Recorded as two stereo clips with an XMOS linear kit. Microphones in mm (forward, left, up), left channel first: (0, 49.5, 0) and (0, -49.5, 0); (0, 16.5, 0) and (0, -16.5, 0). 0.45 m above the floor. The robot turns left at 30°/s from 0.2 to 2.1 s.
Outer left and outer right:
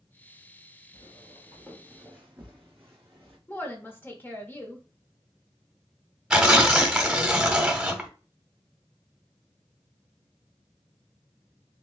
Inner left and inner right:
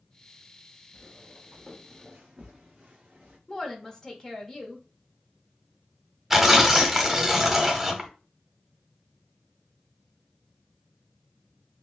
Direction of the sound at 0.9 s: 45° left (ahead or behind).